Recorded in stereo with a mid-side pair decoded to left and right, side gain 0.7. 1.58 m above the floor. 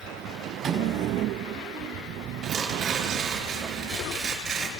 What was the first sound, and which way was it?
A microwave, 50° right.